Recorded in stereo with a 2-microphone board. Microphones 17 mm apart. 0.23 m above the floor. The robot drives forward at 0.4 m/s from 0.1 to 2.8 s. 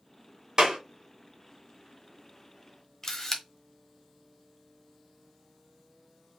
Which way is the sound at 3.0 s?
20° left (ahead or behind).